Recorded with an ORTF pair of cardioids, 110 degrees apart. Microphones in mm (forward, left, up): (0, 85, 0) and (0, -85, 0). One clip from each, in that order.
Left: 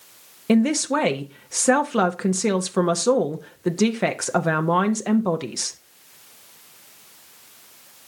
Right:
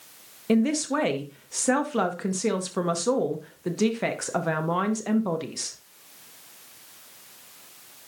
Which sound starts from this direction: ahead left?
A man speaking, at 0.5 s.